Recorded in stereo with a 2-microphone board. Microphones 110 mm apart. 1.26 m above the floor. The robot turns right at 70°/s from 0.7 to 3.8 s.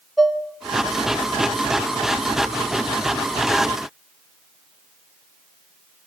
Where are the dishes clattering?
Centre (ahead or behind), 1.5 m.